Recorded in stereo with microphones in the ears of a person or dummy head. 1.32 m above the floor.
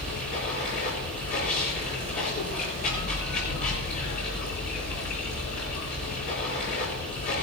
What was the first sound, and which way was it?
Running water, 45° left (ahead or behind).